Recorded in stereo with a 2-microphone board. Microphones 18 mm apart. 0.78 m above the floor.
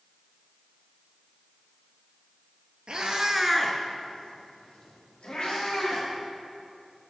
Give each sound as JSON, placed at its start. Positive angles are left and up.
{"t": 2.9, "sound": "a cat meowing", "side_deg": -55, "distance_m": 1.2}